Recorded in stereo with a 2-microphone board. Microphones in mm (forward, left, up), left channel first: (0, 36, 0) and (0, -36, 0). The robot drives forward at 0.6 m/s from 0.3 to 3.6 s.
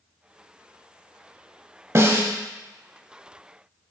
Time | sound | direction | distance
1.9 | a snare drum | 35° right (ahead or behind) | 0.5 m